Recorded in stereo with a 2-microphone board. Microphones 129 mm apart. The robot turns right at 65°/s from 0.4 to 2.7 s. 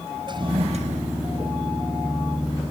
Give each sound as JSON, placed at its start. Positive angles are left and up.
{"t": 0.3, "sound": "a toilet flushing", "azimuth_deg": -140}